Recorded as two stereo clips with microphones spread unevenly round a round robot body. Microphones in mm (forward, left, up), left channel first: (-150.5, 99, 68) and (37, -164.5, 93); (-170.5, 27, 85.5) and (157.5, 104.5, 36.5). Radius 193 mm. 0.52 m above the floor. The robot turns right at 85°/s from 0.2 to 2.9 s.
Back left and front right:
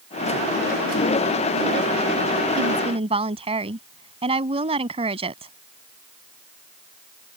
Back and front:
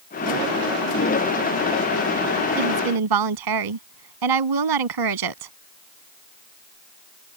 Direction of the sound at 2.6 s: 10° right.